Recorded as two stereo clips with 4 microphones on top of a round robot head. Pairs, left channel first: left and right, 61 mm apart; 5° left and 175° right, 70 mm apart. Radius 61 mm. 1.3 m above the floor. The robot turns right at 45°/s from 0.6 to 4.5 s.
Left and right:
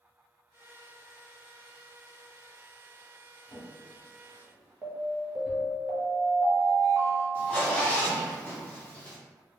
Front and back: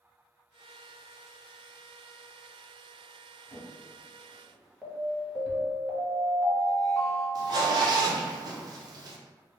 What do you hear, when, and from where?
3.5 s a drawer: 55° left, 1.4 m; by 5.7 s 100° left, 1.4 m
4.8 s an alarm: 70° right, 0.7 m
7.3 s a zipper: 160° left, 0.5 m